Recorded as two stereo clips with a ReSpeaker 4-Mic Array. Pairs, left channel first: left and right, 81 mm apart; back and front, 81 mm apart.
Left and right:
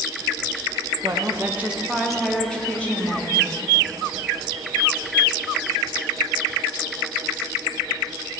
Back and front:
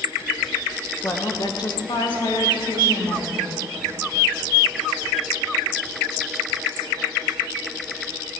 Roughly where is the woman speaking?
Behind right.